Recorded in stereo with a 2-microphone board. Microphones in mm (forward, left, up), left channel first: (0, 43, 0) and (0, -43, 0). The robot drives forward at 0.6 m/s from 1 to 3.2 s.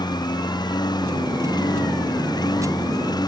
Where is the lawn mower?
60° left (ahead or behind); by 3.3 s 55° left (ahead or behind).